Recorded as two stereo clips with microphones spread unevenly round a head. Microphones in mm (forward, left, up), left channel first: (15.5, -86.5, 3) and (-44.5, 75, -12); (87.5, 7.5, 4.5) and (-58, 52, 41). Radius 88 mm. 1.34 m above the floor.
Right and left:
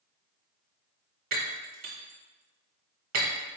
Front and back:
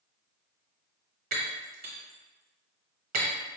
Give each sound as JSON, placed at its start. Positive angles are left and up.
{"t": 1.3, "sound": "breaking glass", "azimuth_deg": 150, "distance_m": 0.9}